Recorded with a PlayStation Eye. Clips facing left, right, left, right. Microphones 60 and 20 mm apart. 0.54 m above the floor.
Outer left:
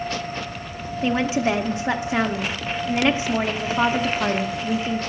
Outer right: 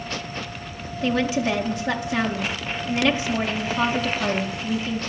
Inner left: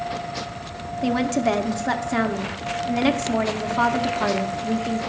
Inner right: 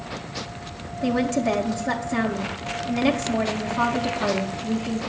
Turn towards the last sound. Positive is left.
turn(degrees=25)  # may be behind; listen again after turning